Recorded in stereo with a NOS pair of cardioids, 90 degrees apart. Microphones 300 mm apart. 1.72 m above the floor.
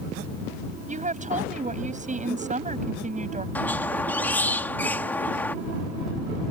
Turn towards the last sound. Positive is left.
turn(degrees=5)